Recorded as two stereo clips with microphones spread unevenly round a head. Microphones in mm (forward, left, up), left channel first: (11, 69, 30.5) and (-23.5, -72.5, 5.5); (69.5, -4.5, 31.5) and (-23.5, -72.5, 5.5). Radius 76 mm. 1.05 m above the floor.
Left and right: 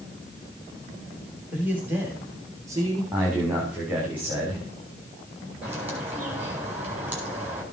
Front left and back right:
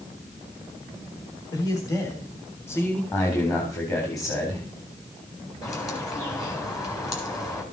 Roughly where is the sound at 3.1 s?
Ahead right.